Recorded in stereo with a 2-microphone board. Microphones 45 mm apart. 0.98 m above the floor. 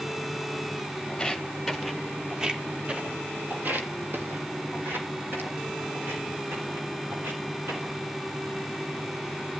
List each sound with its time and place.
1.1 s footsteps: 15° left (ahead or behind), 1.2 m; by 8.0 s 55° right (ahead or behind), 3 m